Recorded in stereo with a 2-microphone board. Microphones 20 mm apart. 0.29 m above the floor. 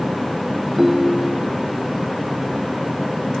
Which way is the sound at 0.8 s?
20° right (ahead or behind).